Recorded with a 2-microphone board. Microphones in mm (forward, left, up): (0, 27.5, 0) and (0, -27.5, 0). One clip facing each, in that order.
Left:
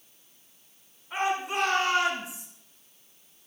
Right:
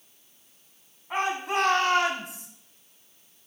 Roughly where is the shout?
Right.